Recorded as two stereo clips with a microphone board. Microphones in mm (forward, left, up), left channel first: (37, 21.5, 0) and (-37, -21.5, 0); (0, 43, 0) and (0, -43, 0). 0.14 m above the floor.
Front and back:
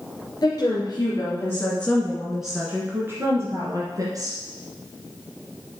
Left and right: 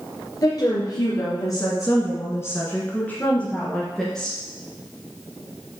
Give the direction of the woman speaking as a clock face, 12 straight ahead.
10 o'clock.